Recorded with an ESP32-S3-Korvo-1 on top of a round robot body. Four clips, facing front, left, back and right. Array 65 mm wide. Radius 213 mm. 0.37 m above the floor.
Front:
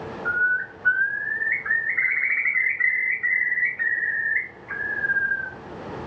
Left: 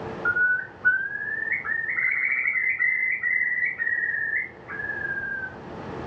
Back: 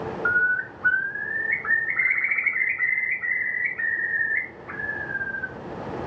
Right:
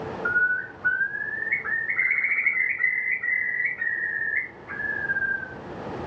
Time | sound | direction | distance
0.2 | a bird | 160° right | 4 m